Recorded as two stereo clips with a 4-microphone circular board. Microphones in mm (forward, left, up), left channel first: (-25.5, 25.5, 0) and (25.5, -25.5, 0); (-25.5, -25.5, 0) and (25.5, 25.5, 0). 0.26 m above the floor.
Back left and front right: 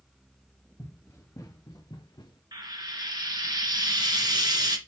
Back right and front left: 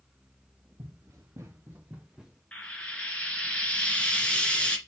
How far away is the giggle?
No giggle in this recording.